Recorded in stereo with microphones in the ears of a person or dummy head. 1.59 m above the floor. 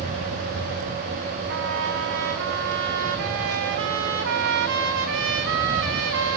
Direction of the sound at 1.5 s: 60° right (ahead or behind).